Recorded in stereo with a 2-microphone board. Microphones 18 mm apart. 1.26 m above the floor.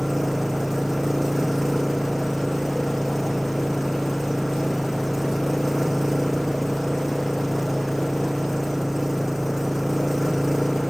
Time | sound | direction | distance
0.0 | an engine running | 15° right (ahead or behind) | ?